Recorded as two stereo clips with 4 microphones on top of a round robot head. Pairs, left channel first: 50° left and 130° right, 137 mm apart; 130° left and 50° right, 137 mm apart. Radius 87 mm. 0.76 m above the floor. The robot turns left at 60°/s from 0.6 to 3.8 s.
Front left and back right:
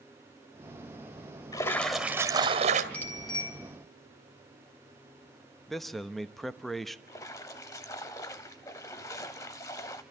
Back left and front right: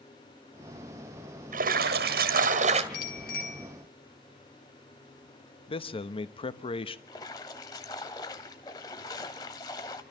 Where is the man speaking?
140° left, 1.1 m.